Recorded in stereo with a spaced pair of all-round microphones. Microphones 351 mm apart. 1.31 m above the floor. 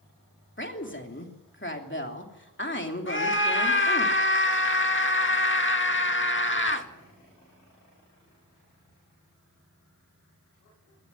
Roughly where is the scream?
Left.